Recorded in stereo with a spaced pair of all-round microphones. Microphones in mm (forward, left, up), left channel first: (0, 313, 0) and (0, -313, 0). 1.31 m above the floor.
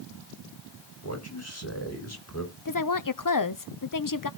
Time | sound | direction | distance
1.0 | a man speaking | 25° left (ahead or behind) | 4 m
2.6 | a woman speaking | 35° left (ahead or behind) | 0.6 m